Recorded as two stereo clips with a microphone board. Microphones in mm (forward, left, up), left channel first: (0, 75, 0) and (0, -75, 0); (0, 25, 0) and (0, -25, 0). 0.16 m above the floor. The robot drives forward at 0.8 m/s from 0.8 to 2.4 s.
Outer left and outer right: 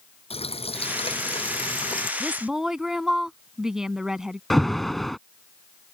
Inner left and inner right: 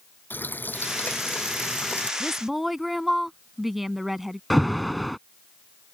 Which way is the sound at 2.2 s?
5° right (ahead or behind).